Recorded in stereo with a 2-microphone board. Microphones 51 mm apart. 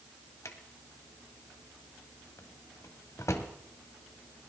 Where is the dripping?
No dripping in this recording.